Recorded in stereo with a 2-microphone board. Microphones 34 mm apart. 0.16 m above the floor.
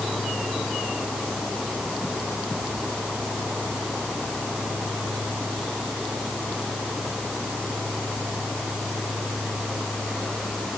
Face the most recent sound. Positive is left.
No sound to turn to.